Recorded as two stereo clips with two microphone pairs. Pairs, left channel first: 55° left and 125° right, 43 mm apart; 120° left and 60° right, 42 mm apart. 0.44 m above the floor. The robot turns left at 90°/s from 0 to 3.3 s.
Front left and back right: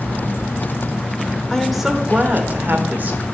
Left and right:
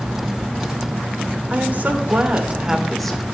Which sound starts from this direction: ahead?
A woman speaking, at 1.5 s.